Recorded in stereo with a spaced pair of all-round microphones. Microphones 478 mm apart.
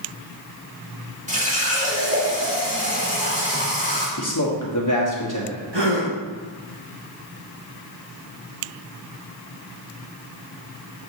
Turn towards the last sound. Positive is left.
turn(degrees=-60)  # may be behind; listen again after turning